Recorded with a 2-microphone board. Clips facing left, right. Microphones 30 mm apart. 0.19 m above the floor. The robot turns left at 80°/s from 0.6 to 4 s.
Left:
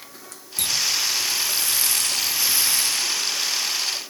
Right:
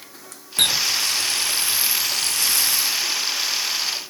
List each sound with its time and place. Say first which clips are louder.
0.6 s a running tap: right 4 dB; 55° right; by 3.1 s 105° left